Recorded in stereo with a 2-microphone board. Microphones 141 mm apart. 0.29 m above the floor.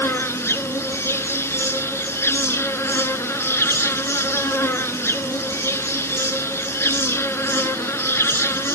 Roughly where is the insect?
Centre.